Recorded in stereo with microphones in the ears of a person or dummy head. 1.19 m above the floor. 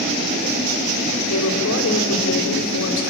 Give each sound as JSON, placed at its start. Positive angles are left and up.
{"t": 1.3, "sound": "a woman speaking", "side_deg": 70, "distance_m": 3.5}